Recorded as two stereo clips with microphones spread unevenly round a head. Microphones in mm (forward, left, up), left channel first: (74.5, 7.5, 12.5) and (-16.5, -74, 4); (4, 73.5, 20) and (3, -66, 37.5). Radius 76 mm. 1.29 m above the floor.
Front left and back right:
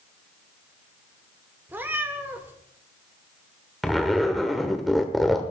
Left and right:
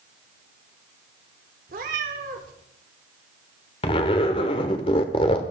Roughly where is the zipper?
Behind left.